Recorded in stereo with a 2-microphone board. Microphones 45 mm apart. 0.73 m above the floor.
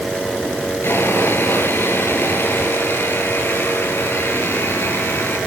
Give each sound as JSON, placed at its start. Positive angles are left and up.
{"t": 0.8, "sound": "sawing", "side_deg": 60, "distance_m": 8.5}